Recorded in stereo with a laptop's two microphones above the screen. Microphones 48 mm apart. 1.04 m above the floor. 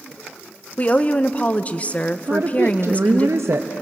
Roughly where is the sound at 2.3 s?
Right.